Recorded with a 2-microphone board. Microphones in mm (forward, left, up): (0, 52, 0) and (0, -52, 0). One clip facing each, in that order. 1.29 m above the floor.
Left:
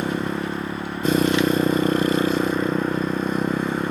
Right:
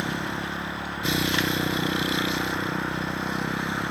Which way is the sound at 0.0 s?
45° left (ahead or behind).